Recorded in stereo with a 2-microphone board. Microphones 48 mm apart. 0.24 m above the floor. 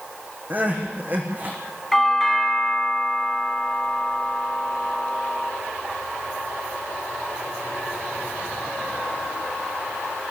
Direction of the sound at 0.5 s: 40° right (ahead or behind).